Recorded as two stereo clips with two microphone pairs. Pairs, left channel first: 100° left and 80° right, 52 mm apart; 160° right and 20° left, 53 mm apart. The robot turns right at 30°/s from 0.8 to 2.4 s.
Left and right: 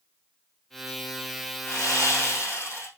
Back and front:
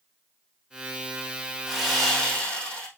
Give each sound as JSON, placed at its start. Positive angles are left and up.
{"t": 1.7, "sound": "sawing", "azimuth_deg": 105, "distance_m": 3.5}